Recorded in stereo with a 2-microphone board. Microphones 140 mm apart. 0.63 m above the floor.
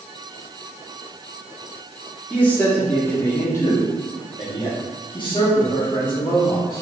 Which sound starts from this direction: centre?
A man speaking, at 2.3 s.